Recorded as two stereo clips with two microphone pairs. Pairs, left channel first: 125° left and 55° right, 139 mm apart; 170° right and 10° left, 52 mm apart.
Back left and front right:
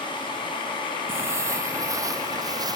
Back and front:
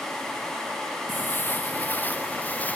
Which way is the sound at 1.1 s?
125° right.